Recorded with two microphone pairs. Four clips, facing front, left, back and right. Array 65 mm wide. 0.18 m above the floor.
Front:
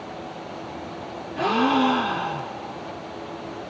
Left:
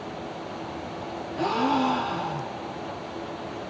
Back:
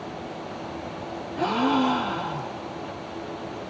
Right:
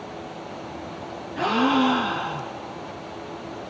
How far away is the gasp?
About 1.9 m.